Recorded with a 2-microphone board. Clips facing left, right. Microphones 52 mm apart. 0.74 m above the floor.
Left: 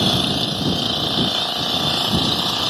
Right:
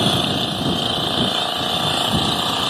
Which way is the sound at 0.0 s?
15° right (ahead or behind).